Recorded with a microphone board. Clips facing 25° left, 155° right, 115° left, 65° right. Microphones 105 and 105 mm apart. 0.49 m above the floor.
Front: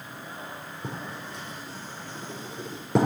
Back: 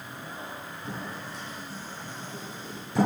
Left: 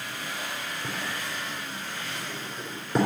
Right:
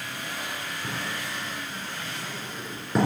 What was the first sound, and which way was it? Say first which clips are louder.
Writing: front 1 dB, right 1 dB; 25° left.